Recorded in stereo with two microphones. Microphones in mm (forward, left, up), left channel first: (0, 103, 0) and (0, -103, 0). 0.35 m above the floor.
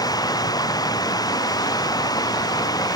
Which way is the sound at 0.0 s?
20° left (ahead or behind).